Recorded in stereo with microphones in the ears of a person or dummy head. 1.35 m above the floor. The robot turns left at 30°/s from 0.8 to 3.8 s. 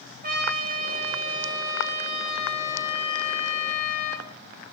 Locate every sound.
0.2 s a trumpet: 135° right, 0.6 m; by 4.3 s 135° left, 0.6 m